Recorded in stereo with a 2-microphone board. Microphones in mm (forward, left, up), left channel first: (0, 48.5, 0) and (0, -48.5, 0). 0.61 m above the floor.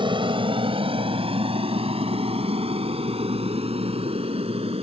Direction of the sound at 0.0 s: 55° right (ahead or behind).